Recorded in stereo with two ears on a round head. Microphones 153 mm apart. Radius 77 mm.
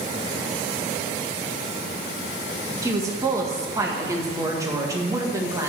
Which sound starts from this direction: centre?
A woman speaking, at 2.8 s.